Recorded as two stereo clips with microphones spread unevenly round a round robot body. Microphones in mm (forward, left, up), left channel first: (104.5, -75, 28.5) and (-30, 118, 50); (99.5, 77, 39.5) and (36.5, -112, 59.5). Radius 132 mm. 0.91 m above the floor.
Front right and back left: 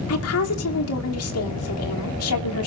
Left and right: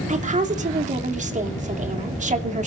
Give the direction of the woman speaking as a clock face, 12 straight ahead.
2 o'clock.